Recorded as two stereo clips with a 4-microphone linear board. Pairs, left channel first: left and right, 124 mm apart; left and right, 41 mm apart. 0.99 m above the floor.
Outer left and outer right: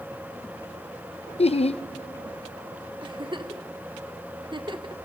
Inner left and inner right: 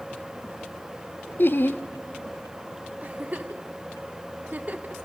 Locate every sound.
1.4 s laughter: 55° left (ahead or behind), 0.6 m
3.0 s a giggle: 40° right (ahead or behind), 0.8 m